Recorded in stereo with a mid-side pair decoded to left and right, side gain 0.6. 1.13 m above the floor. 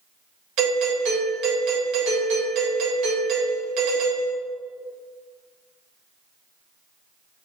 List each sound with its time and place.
0.6 s a doorbell: 65° right, 1.6 m